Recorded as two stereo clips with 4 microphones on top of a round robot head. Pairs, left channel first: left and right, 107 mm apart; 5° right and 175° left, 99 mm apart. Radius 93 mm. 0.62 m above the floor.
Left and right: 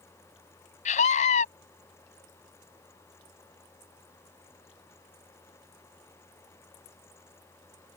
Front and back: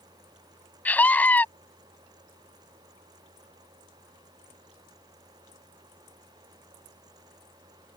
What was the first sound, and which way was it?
A scream, 70° left.